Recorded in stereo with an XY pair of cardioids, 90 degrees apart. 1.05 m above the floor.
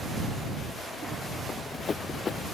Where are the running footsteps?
45° left.